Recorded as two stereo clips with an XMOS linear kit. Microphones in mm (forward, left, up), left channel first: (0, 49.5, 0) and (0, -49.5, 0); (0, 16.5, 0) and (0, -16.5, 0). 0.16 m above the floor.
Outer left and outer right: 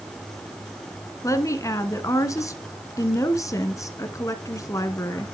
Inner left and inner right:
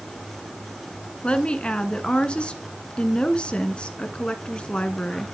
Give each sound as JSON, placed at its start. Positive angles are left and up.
{"t": 1.2, "sound": "a woman speaking", "side_deg": 30, "distance_m": 1.6}